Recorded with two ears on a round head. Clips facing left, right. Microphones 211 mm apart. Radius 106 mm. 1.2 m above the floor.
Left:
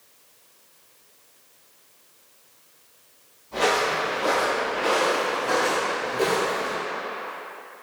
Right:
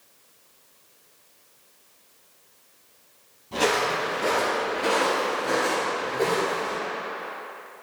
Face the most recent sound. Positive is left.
turn(degrees=25)  # may be behind; listen again after turning